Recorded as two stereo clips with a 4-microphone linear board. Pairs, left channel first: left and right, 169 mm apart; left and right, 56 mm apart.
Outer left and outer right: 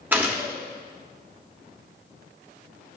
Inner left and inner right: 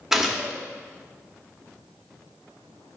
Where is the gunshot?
10° right (ahead or behind), 1.1 m.